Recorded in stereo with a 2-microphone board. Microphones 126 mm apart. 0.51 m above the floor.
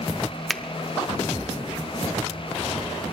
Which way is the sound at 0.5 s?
Centre (ahead or behind).